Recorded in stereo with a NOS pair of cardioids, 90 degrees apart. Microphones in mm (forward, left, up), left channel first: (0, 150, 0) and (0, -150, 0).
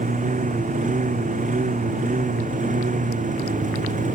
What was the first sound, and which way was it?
A lawn mower, 25° right.